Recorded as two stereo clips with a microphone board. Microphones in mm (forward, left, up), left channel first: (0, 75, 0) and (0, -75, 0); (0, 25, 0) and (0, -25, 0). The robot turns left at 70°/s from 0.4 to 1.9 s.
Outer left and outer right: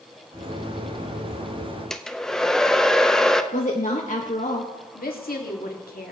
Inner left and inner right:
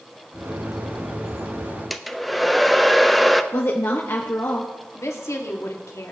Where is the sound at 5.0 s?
80° left, 1.8 m.